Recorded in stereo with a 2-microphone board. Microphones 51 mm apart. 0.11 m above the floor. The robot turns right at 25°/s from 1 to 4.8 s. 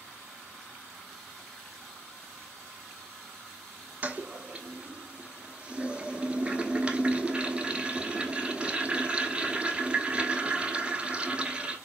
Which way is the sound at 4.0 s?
30° right (ahead or behind).